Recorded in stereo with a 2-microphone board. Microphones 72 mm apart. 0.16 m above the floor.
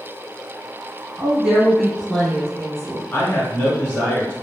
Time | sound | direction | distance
1.2 | a woman speaking | 15° right (ahead or behind) | 1.1 m
3.1 | a man speaking | 30° left (ahead or behind) | 1.7 m